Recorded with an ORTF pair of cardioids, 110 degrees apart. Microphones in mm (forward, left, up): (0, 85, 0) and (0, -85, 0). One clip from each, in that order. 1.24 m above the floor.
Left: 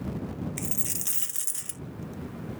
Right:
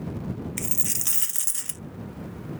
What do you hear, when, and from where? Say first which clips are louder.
0.6 s a dropped coin: right 7 dB; 25° right